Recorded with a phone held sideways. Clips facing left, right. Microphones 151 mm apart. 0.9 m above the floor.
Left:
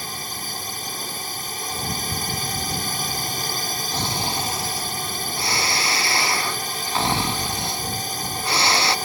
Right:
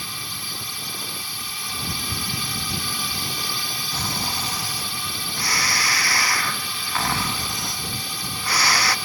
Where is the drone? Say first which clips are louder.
Left 4 dB; 45° left (ahead or behind).